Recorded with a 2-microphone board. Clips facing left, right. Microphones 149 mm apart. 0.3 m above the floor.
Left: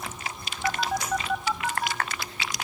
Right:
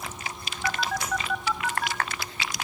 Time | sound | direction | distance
0.6 | a phone buzzing | 15° left (ahead or behind) | 0.7 m